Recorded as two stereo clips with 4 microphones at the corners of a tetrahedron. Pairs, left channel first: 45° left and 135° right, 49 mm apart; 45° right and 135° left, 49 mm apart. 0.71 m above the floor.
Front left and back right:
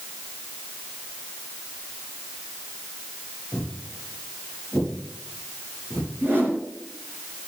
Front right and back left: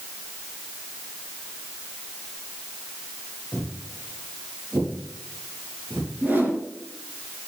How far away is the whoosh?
About 3.5 m.